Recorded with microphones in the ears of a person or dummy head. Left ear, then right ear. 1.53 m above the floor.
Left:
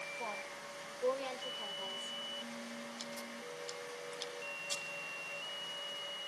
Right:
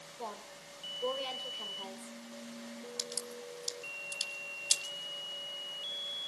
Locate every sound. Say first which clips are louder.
0.2 s a woman speaking: left 2 dB; 5° right (ahead or behind), 4.5 m
3.0 s a crack: right 4 dB; 55° right (ahead or behind), 4 m